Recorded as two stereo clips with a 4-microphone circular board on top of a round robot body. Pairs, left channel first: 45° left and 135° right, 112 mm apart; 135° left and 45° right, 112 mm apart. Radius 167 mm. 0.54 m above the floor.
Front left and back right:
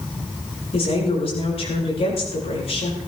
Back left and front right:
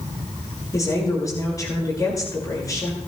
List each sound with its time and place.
0.7 s a woman speaking: 75° left, 9.5 m